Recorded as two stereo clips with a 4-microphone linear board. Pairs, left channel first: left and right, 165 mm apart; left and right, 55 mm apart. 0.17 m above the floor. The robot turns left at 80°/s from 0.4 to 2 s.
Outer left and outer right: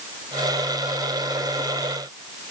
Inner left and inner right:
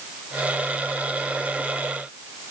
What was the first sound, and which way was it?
Only background noise.